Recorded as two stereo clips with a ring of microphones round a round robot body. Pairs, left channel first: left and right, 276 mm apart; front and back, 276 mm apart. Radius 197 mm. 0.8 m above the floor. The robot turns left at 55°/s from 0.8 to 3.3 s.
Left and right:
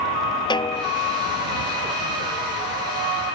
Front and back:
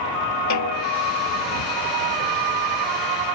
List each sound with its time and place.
0.5 s a snare drum: 15° left; by 0.9 s 10° left